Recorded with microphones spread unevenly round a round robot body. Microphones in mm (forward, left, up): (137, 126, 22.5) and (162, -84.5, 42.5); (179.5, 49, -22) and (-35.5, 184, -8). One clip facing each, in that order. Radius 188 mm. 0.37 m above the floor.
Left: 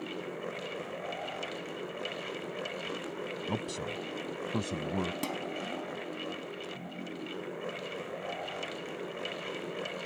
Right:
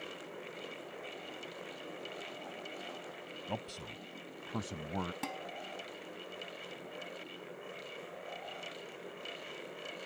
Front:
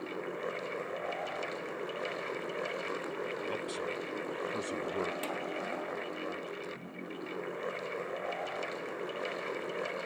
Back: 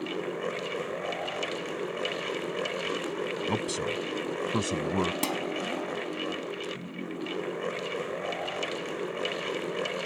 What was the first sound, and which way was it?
A man speaking, 150° left.